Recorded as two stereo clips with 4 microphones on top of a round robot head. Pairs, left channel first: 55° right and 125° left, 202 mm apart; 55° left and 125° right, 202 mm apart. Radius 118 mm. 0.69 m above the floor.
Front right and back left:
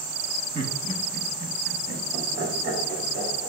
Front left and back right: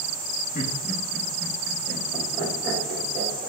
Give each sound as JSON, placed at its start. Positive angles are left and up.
{"t": 0.6, "sound": "laughter", "azimuth_deg": 70, "distance_m": 1.2}